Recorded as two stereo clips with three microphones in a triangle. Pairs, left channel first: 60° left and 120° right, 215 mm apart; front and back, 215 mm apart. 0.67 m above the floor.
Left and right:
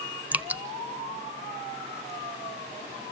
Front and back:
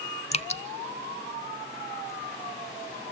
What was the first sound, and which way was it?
Dripping, 40° right.